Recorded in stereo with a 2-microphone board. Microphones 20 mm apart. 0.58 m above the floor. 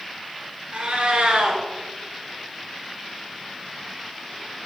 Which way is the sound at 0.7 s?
65° right (ahead or behind).